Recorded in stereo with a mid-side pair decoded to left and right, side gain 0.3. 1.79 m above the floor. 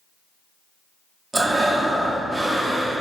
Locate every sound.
1.3 s breathing: 40° right, 0.5 m